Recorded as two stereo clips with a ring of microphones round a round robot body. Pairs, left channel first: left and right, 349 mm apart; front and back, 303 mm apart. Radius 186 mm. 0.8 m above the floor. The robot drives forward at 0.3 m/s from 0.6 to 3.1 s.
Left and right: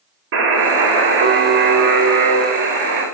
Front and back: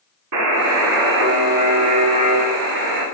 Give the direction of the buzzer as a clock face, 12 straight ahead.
5 o'clock.